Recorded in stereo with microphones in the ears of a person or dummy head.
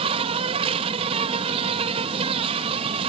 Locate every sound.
0.0 s an insect: 25° right (ahead or behind)